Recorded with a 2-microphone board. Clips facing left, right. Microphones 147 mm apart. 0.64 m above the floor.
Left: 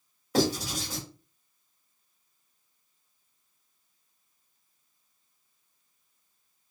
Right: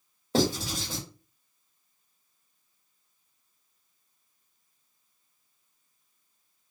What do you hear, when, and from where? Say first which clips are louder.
0.3 s writing: even; 30° right (ahead or behind), 1.5 m